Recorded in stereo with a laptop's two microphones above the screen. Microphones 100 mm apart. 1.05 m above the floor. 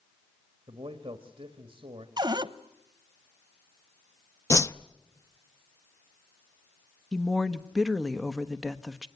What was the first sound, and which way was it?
A man speaking, 60° right (ahead or behind).